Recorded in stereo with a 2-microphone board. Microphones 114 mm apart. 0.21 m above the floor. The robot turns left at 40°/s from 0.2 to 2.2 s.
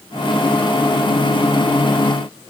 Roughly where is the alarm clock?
No alarm clock in this recording.